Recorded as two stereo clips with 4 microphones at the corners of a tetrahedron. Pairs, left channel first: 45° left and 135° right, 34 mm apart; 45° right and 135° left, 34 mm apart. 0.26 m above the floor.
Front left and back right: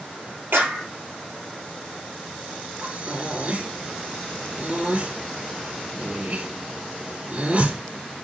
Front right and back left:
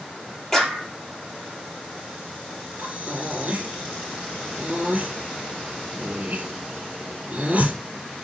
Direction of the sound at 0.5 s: 125° right.